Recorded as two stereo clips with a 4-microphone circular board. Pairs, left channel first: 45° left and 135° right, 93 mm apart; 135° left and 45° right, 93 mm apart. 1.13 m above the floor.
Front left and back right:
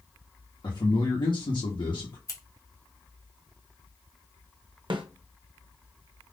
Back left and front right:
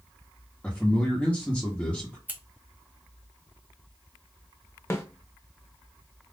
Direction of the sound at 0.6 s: 60° left.